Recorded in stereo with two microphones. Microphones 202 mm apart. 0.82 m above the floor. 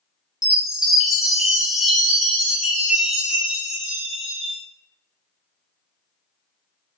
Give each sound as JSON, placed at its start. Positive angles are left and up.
{"t": 0.4, "sound": "a chime", "side_deg": -5, "distance_m": 0.8}